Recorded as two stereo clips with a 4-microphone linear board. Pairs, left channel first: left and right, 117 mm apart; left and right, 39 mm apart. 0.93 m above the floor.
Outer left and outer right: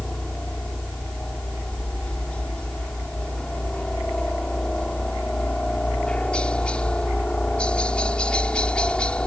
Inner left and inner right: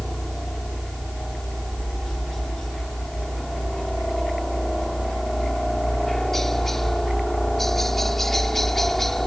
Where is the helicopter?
5° left (ahead or behind).